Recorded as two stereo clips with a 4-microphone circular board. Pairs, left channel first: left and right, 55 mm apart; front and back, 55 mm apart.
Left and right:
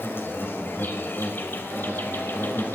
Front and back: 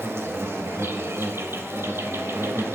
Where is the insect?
140° left, 2 m.